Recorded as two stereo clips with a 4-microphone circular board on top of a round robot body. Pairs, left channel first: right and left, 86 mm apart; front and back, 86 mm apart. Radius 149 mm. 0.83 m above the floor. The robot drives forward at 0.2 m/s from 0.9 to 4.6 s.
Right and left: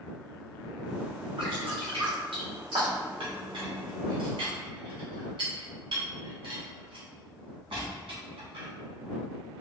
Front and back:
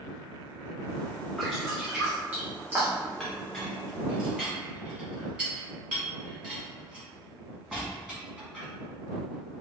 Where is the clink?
90° left, 1.2 m; by 8.7 s 105° left, 1.2 m.